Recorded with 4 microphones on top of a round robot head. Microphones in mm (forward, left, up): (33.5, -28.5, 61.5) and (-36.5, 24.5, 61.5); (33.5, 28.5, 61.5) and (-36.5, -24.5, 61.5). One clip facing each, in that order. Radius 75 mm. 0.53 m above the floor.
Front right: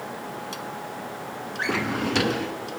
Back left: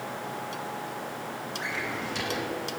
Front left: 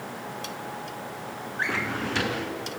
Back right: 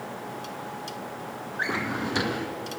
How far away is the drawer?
About 2 m.